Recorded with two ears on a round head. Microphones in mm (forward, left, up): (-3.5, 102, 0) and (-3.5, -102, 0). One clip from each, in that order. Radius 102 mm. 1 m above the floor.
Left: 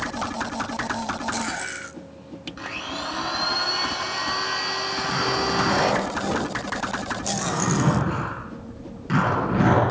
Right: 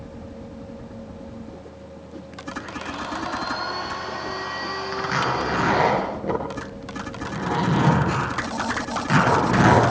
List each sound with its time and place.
2.6 s a blender: 75° left (ahead or behind), 7 m
4.9 s a zipper: 40° right (ahead or behind), 9.5 m